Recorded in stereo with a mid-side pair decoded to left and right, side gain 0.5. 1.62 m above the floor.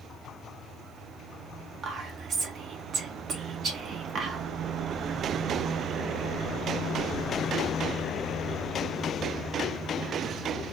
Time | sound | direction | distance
1.8 | whispering | 55° right | 1.5 m